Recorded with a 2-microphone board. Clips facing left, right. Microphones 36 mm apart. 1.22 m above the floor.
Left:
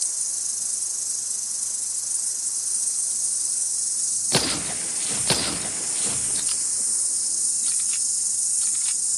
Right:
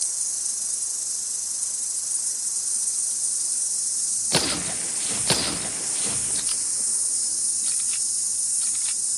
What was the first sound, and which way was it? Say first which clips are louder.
An insect: even; 10° right (ahead or behind).